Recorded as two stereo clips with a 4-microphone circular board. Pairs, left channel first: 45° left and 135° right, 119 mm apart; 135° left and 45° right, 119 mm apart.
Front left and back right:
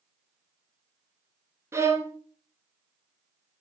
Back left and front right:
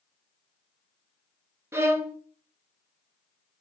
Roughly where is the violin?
Right.